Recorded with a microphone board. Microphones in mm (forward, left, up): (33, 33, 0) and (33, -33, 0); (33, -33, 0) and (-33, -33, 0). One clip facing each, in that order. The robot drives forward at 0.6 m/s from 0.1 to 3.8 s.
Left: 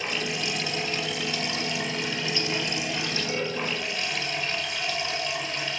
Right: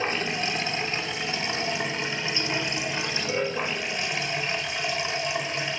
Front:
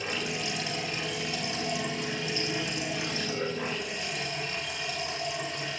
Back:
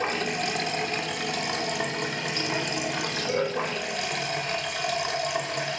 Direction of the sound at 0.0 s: 145° right.